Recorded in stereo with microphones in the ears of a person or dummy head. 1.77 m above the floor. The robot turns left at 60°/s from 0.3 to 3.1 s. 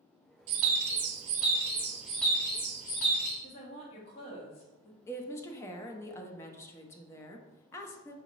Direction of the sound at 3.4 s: 40° left (ahead or behind).